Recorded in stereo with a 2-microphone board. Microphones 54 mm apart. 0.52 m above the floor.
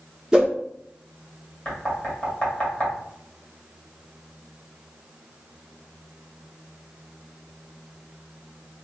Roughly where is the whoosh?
Centre.